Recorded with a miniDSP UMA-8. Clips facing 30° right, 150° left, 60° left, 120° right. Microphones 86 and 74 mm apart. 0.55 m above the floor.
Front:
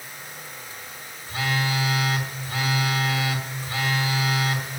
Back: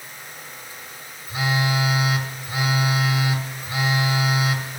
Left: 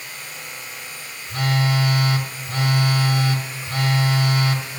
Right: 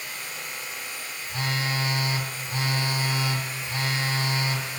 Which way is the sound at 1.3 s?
75° left.